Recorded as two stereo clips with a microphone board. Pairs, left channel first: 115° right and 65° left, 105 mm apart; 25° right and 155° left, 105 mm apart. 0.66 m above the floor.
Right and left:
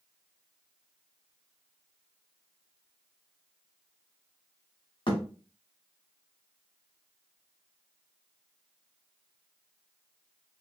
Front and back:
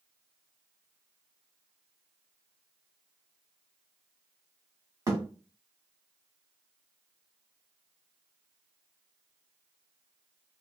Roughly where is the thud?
Behind right.